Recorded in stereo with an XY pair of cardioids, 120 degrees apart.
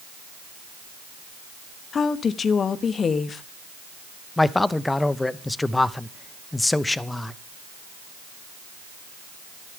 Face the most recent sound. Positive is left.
turn(degrees=10)